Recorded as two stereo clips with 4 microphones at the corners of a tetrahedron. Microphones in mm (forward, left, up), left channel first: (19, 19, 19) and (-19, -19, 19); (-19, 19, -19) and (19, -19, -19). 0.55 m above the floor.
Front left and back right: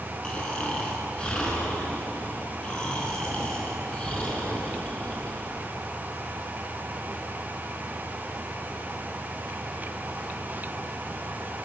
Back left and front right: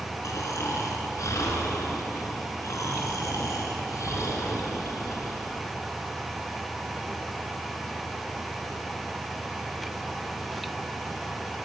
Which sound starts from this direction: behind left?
Snoring, at 0.2 s.